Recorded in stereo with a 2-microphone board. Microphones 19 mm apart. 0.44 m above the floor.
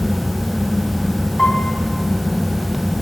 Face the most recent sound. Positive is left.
turn(degrees=35)  # may be behind; listen again after turning